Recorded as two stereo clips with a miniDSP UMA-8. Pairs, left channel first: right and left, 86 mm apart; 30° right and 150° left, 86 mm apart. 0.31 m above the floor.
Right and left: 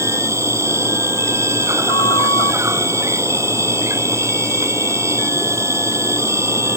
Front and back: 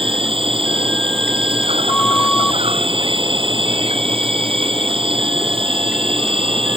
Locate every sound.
0.0 s an insect: 150° left
1.9 s a flute: 105° right